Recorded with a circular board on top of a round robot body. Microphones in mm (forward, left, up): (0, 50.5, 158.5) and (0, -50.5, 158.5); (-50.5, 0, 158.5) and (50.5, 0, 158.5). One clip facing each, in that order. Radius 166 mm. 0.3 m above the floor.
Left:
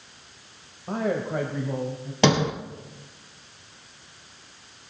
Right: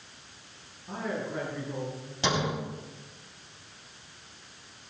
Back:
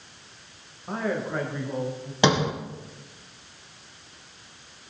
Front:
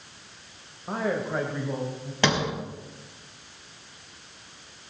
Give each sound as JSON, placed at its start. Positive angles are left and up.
{"t": 0.9, "sound": "a man speaking", "azimuth_deg": 80, "distance_m": 2.0}
{"t": 2.2, "sound": "a sliding door", "azimuth_deg": 105, "distance_m": 2.0}